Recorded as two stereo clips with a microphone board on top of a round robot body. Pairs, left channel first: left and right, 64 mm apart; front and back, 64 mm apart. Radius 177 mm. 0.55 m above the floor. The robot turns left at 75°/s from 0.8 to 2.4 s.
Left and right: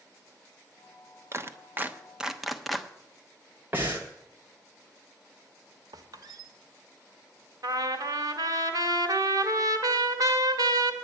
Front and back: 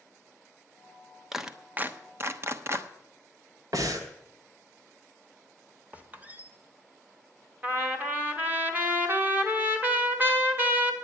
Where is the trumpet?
120° right, 1.9 m.